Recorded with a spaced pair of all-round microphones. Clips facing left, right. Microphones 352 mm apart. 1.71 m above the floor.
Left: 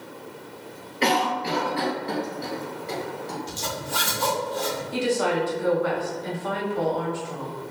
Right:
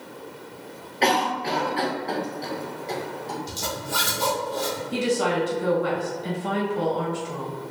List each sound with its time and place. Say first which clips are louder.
1.0 s a cough: even; 15° left (ahead or behind), 1.1 m
3.5 s a zipper: even; 55° right (ahead or behind), 1.0 m
4.9 s a woman speaking: even; 45° right (ahead or behind), 1.2 m